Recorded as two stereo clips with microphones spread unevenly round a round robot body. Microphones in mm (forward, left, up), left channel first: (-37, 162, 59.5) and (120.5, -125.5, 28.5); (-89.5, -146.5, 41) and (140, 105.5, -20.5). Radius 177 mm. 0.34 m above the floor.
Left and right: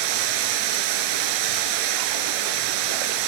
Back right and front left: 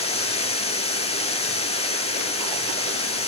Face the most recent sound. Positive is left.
turn(degrees=-60)